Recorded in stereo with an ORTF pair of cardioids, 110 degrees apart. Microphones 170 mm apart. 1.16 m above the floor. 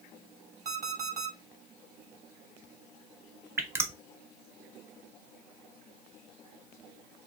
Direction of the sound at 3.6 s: 15° right.